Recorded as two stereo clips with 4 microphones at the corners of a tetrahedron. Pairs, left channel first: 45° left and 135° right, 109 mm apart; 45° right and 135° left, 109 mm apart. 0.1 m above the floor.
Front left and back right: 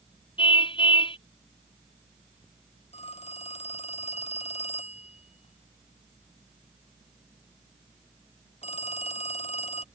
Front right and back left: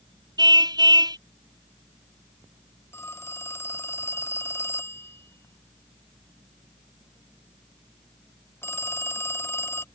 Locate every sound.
0.4 s a car horn: 85° left
2.9 s a phone ringing: 25° left